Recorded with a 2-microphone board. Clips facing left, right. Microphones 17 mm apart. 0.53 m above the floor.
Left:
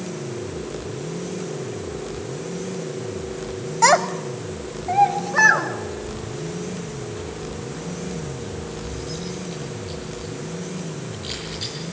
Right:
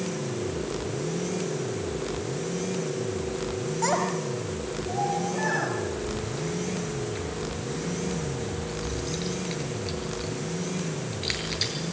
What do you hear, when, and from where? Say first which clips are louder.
3.8 s a child speaking: left 10 dB; 55° left (ahead or behind), 1.4 m; by 5.7 s 75° left (ahead or behind), 3.5 m
6.0 s keys jangling: even; 35° right (ahead or behind), 6.5 m